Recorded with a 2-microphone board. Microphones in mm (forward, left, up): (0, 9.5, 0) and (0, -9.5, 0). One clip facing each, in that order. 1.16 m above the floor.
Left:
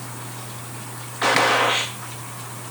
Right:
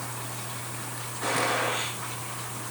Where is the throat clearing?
No throat clearing in this recording.